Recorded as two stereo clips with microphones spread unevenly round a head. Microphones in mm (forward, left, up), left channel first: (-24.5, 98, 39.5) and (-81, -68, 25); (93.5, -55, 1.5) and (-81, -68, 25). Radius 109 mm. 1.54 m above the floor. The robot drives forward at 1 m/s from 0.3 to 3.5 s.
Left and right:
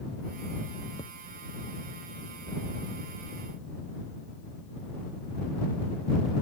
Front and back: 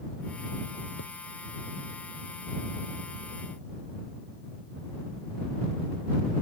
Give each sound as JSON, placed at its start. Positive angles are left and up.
{"t": 1.0, "sound": "a thud", "azimuth_deg": 0}